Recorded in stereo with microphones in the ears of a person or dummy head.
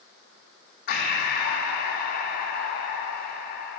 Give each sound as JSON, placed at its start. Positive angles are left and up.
{"t": 0.9, "sound": "breathing", "side_deg": 55, "distance_m": 0.7}